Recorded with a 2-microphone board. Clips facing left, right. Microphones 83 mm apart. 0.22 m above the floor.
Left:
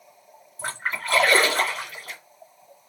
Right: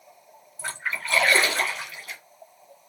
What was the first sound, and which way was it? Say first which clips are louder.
A splash: left 2 dB; 40° left (ahead or behind).